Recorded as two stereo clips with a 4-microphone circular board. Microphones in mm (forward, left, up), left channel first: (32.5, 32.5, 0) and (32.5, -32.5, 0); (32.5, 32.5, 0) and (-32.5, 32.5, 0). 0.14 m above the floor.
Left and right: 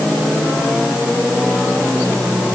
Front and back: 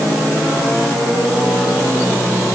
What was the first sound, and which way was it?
Only background noise.